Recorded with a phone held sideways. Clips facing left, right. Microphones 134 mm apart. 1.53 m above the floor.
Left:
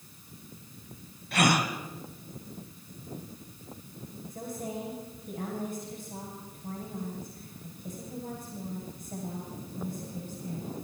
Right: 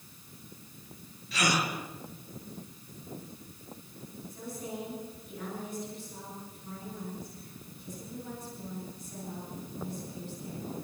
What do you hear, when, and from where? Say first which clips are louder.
1.3 s a gasp: left 4 dB; 60° left (ahead or behind), 3 m
4.3 s a woman speaking: left 3 dB; 55° left (ahead or behind), 8.5 m